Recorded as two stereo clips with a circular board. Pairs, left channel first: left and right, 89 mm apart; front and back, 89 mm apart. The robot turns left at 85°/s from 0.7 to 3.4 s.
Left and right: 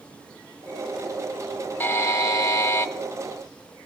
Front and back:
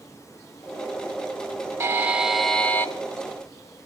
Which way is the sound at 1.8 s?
140° left.